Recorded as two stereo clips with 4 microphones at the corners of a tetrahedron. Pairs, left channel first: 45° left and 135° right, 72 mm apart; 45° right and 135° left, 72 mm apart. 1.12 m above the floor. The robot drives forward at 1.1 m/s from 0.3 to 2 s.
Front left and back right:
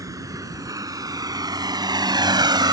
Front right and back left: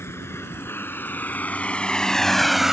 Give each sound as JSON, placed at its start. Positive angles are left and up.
{"t": 0.0, "sound": "a vehicle", "azimuth_deg": -100}